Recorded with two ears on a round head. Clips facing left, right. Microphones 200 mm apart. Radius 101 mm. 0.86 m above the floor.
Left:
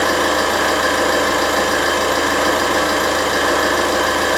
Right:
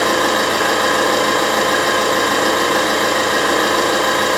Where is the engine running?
25° left (ahead or behind), 1.6 m.